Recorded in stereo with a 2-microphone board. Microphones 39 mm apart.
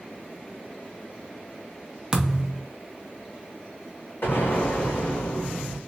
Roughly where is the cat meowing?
I don't hear a cat meowing.